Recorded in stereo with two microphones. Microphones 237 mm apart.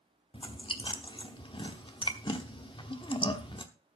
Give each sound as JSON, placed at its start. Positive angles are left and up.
{"t": 0.3, "sound": "chewing", "side_deg": 20, "distance_m": 1.0}